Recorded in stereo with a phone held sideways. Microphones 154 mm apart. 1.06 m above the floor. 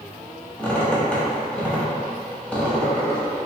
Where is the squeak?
10° left (ahead or behind), 1.0 m.